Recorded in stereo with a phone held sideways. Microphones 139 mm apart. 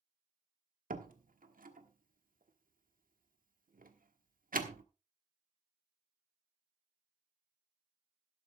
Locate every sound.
0.9 s a door slam: 85° right, 1.3 m